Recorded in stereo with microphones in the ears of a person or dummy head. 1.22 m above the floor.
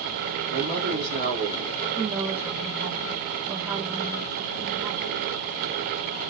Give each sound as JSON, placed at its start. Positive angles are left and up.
{"t": 0.5, "sound": "a man speaking", "side_deg": -60, "distance_m": 1.2}
{"t": 2.0, "sound": "a woman speaking", "side_deg": -15, "distance_m": 0.6}